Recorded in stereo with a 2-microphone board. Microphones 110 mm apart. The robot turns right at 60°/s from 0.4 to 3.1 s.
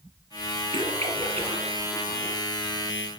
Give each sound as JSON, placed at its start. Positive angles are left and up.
{"t": 0.7, "sound": "a splash", "side_deg": -60, "distance_m": 4.0}